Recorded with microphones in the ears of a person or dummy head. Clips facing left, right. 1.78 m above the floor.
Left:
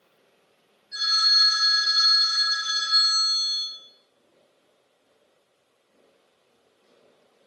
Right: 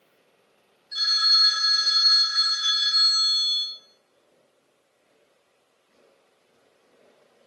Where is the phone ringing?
60° right (ahead or behind), 1.7 m.